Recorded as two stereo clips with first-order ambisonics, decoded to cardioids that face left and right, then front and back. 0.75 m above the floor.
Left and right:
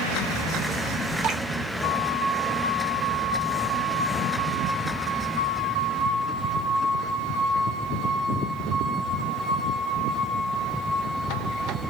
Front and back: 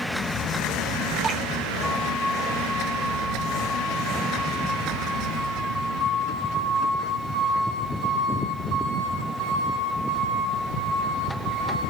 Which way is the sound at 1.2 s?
120° right.